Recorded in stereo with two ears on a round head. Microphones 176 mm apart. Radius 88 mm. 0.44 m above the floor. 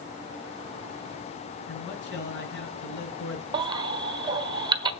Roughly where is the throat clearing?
No throat clearing in this recording.